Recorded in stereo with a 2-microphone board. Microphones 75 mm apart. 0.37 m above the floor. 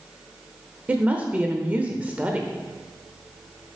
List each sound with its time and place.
0.9 s a woman speaking: 20° right (ahead or behind), 0.8 m